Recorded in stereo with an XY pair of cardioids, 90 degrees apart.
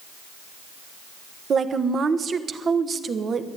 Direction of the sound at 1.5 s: 50° right.